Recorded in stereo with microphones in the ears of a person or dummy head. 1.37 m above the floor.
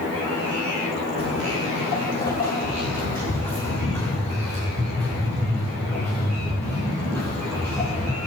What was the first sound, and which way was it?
Footsteps, 35° left (ahead or behind).